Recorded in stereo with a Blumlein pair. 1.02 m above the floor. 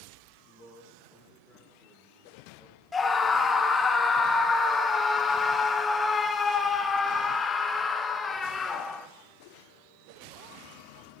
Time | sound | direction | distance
0.5 | a man speaking | 30° left | 4 m
2.9 | a scream | 20° left | 1.2 m